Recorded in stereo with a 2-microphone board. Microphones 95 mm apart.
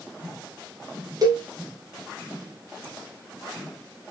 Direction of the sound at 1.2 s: 45° right (ahead or behind).